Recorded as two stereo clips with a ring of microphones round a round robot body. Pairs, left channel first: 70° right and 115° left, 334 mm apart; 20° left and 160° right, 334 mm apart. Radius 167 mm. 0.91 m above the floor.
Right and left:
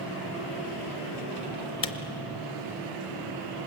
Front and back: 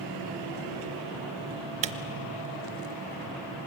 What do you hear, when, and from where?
1.8 s a camera shutter: 120° right, 0.7 m